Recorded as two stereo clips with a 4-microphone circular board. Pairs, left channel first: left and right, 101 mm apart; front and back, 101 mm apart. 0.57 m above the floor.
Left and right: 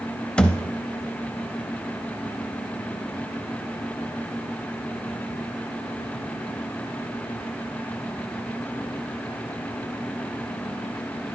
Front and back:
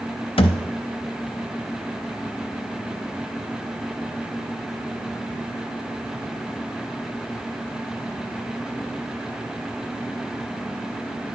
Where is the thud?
10° left, 0.5 m.